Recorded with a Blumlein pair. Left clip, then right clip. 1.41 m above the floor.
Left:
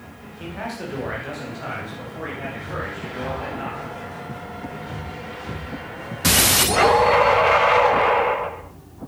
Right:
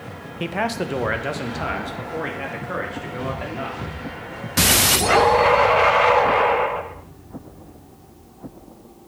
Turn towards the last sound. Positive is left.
turn(degrees=-65)